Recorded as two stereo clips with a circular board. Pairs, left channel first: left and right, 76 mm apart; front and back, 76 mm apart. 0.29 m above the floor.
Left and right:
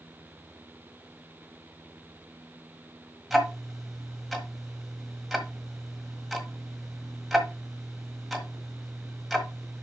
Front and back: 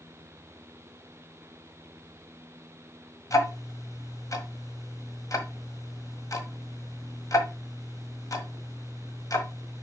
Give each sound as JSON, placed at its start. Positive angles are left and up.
{"t": 3.3, "sound": "ticking", "azimuth_deg": 0, "distance_m": 1.4}